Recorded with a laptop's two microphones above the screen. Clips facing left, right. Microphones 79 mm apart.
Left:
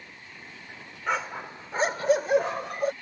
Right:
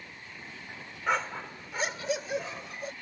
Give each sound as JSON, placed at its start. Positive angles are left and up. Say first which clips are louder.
{"t": 1.1, "sound": "a dog barking", "louder": "even", "side_deg": 0}